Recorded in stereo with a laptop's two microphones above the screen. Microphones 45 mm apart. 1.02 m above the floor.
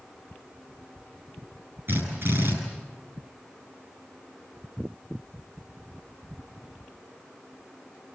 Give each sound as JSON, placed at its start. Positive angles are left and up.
{"t": 1.9, "sound": "a drill", "side_deg": -55, "distance_m": 8.0}